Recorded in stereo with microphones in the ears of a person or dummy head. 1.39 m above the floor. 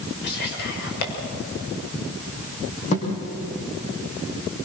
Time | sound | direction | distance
0.2 | whispering | 60° left (ahead or behind) | 6 m
2.9 | a thud | 35° left (ahead or behind) | 4.5 m